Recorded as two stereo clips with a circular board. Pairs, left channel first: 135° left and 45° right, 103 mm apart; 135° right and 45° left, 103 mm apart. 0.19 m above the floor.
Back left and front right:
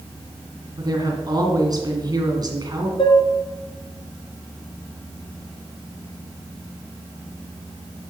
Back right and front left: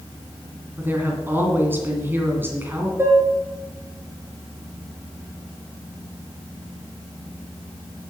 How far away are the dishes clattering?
About 2 m.